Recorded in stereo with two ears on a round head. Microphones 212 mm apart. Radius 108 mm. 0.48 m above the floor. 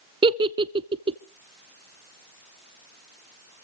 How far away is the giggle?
About 0.7 m.